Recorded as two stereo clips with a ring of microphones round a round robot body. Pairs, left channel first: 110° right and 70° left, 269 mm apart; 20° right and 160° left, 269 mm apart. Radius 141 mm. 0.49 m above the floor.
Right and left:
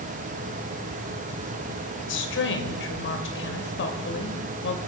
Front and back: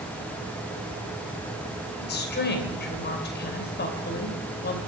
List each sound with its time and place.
2.0 s a woman speaking: 70° right, 2.5 m